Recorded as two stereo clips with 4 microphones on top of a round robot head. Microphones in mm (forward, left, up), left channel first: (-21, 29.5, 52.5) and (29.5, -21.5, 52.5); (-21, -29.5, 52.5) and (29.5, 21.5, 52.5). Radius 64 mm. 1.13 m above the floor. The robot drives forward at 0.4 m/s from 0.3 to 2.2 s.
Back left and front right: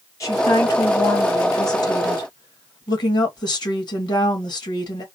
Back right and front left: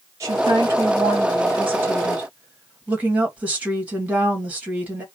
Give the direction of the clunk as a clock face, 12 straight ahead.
I don't hear a clunk.